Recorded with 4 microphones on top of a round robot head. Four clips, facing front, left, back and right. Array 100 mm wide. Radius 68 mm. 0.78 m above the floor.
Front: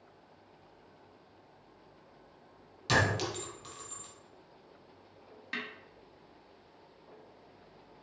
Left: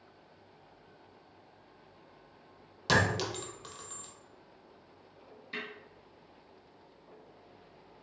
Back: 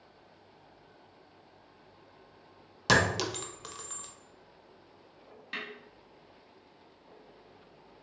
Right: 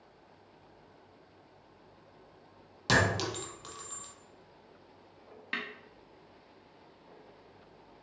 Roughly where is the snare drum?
Right.